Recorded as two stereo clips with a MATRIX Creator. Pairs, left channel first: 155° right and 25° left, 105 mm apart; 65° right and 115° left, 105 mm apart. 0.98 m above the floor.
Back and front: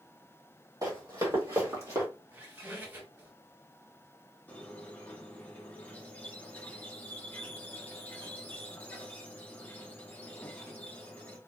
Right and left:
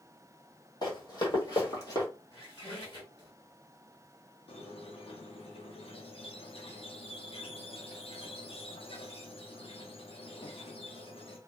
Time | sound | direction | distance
0.8 | running footsteps | 30° right | 1.9 m
2.3 | a squeak | 40° right | 1.5 m
4.5 | a squeak | 85° right | 0.8 m